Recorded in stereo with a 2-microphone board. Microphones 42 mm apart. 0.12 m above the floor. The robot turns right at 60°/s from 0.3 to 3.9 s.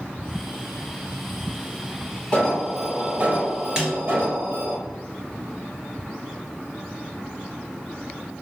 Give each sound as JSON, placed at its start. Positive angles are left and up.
{"t": 2.3, "sound": "an alarm", "azimuth_deg": 155, "distance_m": 4.0}
{"t": 3.8, "sound": "a snare drum", "side_deg": -20, "distance_m": 2.5}